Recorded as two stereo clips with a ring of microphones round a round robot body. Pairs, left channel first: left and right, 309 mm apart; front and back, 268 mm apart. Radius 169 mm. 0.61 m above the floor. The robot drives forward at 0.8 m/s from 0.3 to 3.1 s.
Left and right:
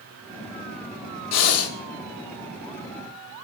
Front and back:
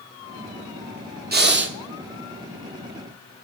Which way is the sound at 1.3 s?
125° left.